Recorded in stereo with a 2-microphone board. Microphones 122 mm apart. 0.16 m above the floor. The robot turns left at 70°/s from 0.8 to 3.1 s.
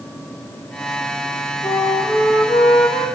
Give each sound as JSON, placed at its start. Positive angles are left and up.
{"t": 1.6, "sound": "a flute", "azimuth_deg": 160, "distance_m": 4.5}